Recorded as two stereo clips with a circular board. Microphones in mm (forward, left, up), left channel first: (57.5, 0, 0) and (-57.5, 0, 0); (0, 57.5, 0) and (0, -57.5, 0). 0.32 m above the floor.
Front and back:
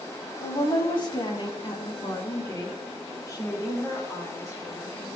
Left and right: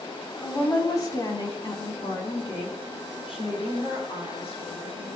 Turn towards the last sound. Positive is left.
turn(degrees=65)